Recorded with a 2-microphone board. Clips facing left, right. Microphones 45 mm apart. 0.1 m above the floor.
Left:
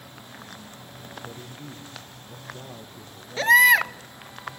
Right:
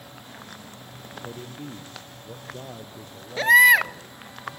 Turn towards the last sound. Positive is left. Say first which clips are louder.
# right 1 dB
turn(degrees=-5)  # may be behind; listen again after turning